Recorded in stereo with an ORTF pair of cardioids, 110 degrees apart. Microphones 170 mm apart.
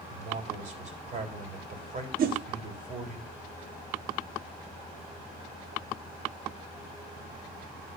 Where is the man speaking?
50° right, 3.5 m.